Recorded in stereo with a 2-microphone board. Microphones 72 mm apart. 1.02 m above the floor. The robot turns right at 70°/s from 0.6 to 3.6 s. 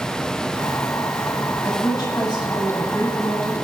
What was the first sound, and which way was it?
A woman speaking, 45° left.